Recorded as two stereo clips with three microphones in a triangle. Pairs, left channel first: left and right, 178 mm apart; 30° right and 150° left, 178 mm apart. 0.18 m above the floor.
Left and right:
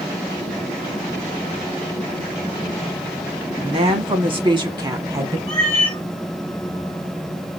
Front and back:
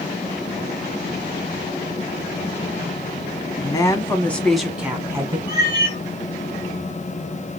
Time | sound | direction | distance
3.6 | a woman speaking | 75° right | 1.3 m
5.5 | a cat meowing | 15° left | 3 m